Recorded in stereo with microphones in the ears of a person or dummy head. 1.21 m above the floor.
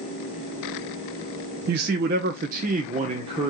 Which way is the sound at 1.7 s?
50° right (ahead or behind).